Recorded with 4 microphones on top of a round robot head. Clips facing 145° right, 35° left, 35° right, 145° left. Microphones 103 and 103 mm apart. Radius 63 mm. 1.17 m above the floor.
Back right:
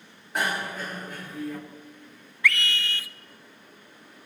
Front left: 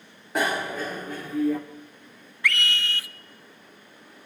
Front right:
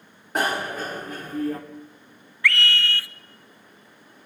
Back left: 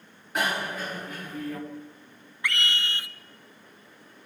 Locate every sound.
0.3 s a bicycle bell: 20° left, 2.5 m
2.4 s a scream: 145° right, 1.0 m